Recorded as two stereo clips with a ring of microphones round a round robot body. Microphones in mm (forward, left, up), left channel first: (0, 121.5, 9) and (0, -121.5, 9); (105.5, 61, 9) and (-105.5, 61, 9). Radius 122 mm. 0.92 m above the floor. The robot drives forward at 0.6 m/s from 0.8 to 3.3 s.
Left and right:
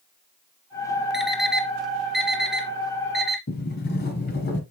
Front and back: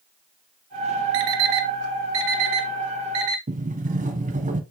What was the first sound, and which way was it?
An alarm clock, straight behind.